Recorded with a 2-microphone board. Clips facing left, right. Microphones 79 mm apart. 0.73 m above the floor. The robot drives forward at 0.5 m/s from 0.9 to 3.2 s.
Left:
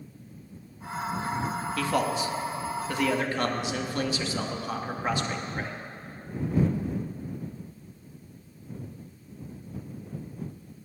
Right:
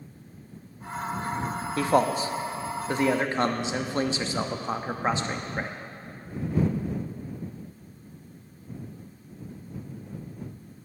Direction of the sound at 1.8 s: 30° right (ahead or behind).